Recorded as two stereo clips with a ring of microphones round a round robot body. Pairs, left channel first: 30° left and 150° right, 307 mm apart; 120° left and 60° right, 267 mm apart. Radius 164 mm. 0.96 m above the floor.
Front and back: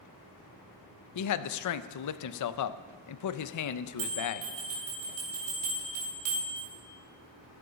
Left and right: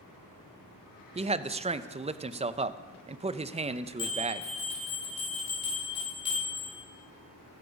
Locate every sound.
1.1 s a man speaking: 5° left, 0.7 m
4.0 s a bell: 165° right, 4 m